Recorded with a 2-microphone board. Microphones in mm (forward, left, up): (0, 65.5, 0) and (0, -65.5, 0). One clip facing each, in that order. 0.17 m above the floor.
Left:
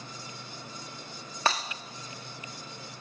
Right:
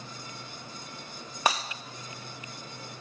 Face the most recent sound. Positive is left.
turn(degrees=-15)  # may be behind; listen again after turning